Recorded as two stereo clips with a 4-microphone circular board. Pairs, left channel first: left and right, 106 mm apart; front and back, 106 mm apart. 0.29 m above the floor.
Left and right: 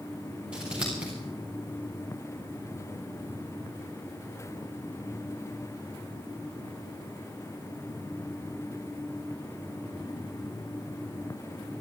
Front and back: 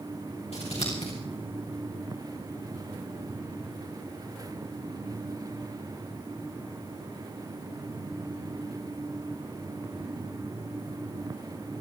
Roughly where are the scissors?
Ahead.